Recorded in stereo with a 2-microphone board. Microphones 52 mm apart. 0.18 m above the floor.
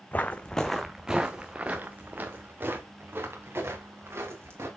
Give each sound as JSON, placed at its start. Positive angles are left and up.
{"t": 0.1, "sound": "footsteps", "side_deg": 35, "distance_m": 0.8}